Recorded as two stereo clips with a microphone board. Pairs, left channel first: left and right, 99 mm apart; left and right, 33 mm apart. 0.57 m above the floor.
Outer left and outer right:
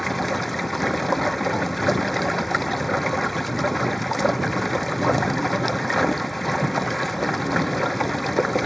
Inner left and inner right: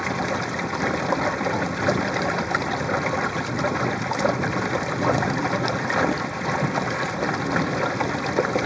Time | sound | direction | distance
0.0 | running water | centre (ahead or behind) | ?